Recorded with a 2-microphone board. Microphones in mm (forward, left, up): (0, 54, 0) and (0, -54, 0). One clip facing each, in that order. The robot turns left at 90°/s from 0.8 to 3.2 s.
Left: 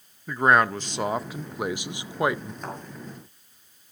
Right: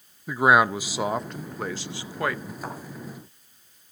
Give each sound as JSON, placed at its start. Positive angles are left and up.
{"t": 0.3, "sound": "a man speaking", "side_deg": -10, "distance_m": 0.6}
{"t": 2.6, "sound": "a thud", "side_deg": -5, "distance_m": 6.0}